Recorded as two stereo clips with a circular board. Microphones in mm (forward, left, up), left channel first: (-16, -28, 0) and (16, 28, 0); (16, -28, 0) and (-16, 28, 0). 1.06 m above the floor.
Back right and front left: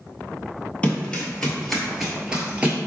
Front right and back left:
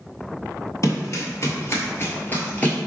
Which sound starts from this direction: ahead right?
Running footsteps, at 0.8 s.